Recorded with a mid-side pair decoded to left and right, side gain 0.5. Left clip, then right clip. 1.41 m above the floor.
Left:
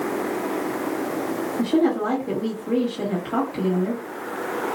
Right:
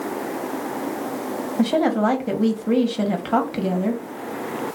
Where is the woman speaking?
55° right, 1.0 m.